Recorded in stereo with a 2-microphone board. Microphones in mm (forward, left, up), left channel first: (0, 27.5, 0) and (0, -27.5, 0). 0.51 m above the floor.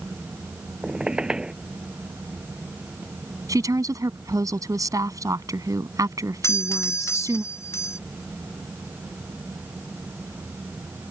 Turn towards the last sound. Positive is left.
turn(degrees=50)  # may be behind; listen again after turning